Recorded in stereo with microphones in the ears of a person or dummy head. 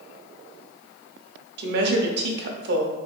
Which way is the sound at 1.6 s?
60° right (ahead or behind).